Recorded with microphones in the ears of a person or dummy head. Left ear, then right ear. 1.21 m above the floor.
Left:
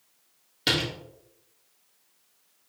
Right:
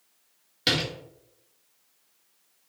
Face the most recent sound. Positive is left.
turn(degrees=-10)  # may be behind; listen again after turning